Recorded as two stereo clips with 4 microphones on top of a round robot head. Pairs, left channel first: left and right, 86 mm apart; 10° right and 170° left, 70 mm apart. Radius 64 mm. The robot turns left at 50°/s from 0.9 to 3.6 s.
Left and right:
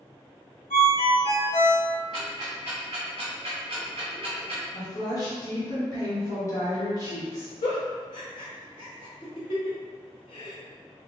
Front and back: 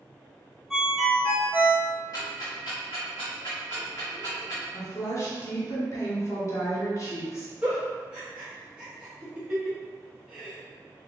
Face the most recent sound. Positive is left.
turn(degrees=95)